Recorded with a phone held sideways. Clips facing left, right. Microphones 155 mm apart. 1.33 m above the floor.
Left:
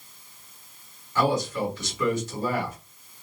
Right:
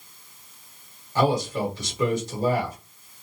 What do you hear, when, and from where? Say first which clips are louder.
1.1 s a man speaking: right 2 dB; 35° right (ahead or behind), 1.3 m